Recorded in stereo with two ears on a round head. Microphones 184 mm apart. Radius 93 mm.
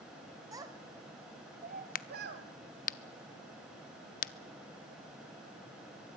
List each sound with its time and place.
0.5 s a child speaking: 15° right (ahead or behind), 2.5 m; by 2.5 s 60° right (ahead or behind), 2.5 m
1.9 s a crack: 45° left (ahead or behind), 0.7 m